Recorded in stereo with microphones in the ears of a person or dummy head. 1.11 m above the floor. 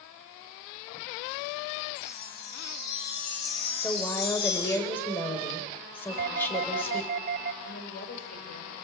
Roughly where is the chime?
Left.